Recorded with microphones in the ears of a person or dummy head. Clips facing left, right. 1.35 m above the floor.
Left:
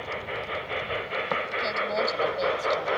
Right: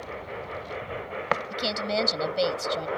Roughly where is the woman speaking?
Right.